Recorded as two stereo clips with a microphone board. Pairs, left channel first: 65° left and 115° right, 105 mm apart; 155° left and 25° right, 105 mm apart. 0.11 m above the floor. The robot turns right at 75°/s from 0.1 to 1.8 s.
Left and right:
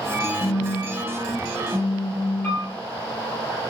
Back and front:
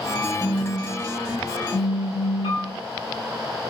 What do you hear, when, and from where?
0.4 s a phone buzzing: 95° left, 1.5 m; by 2.8 s 160° right, 1.5 m
2.4 s a piano: 135° left, 1.8 m